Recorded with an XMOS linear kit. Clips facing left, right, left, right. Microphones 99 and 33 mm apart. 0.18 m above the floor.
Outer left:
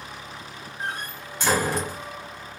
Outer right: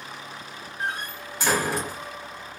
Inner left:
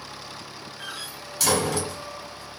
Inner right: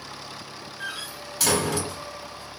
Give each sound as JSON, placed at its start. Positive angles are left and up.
{"t": 0.8, "sound": "a door slam", "side_deg": -5, "distance_m": 2.0}